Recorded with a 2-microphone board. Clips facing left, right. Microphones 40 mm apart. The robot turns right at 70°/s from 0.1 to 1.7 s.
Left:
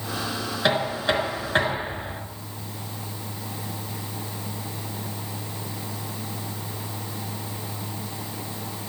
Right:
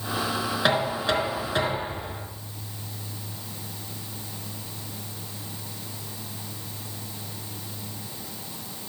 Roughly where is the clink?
I don't hear a clink.